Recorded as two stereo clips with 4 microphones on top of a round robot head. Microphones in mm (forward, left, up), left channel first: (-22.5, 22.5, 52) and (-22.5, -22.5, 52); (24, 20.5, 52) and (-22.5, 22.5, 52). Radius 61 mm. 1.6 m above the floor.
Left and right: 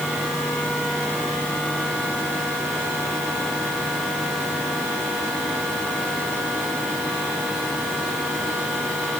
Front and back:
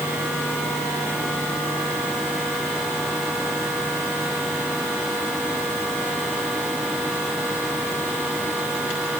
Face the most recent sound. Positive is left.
No sound to turn to.